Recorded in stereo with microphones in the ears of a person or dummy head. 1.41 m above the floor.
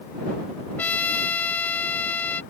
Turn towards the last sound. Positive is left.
turn(degrees=5)  # may be behind; listen again after turning